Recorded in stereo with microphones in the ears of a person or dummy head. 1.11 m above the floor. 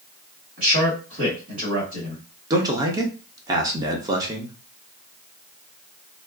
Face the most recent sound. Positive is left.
turn(degrees=-20)  # may be behind; listen again after turning